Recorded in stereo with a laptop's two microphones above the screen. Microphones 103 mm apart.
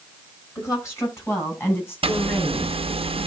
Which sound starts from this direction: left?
A woman speaking, at 0.6 s.